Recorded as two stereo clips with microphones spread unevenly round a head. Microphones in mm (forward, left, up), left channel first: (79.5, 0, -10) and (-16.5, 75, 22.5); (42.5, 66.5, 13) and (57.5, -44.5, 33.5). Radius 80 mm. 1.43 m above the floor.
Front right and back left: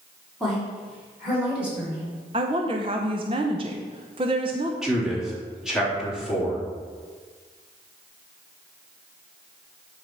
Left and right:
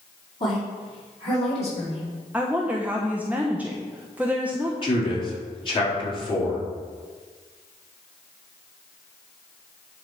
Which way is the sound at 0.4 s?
55° left.